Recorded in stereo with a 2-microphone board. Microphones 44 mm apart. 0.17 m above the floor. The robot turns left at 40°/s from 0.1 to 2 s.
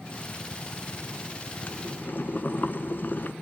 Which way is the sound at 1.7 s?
45° left (ahead or behind).